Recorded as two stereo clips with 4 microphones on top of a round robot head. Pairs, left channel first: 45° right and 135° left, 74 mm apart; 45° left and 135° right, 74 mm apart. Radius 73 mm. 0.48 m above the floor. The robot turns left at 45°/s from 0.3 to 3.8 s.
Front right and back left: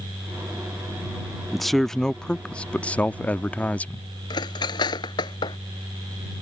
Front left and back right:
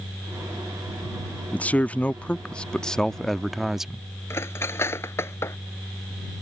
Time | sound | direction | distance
1.5 | a man speaking | 45° left | ?
4.3 | cutlery clinking | 15° right | ?